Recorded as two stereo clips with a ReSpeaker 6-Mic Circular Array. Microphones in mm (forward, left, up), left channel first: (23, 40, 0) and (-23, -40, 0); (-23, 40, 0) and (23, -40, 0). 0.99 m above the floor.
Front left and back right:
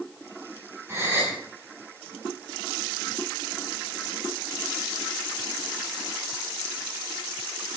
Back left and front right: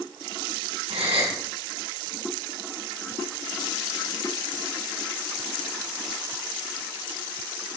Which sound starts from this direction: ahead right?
A gasp, at 0.9 s.